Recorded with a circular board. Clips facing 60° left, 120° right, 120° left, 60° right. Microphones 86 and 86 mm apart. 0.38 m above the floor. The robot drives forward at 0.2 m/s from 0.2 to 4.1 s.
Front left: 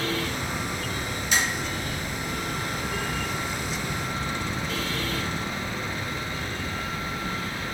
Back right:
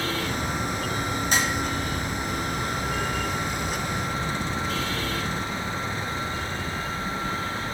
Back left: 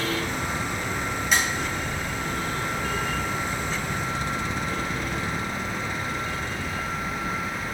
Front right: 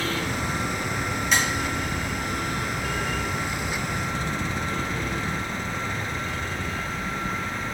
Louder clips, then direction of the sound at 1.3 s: Even, even; 150° right.